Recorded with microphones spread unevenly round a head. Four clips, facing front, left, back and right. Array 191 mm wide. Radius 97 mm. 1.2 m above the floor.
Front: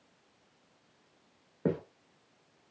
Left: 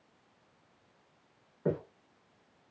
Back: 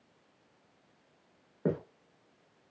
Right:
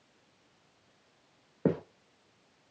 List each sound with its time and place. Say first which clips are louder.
1.6 s footsteps: right 3 dB, even; 45° right, 2 m